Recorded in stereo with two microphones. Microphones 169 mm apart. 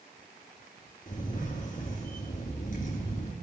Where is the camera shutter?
50° left (ahead or behind), 3.5 m.